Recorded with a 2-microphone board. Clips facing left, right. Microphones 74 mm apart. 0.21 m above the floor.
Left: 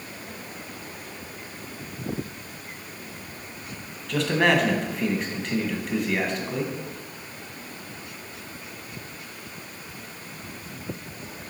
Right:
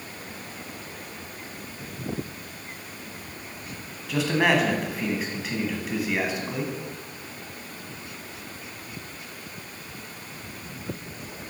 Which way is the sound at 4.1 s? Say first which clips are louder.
Left 1 dB; 5° right (ahead or behind).